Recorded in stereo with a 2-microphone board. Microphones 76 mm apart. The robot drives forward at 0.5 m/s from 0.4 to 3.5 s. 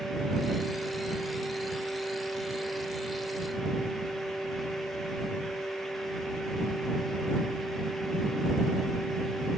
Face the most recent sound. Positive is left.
No sound to turn to.